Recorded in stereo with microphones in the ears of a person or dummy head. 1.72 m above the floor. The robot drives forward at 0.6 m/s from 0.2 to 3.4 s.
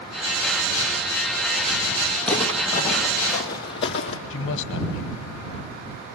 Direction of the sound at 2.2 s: 5° left (ahead or behind).